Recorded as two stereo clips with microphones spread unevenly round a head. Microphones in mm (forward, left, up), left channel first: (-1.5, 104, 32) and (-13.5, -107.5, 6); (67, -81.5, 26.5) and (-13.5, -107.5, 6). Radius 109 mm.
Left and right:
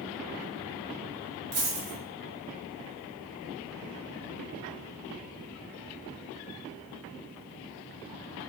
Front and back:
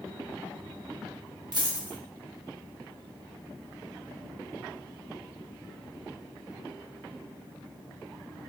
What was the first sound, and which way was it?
A dropped coin, 130° right.